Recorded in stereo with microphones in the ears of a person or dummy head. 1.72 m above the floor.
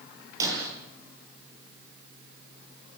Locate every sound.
0.4 s breaking glass: 20° right (ahead or behind), 9.5 m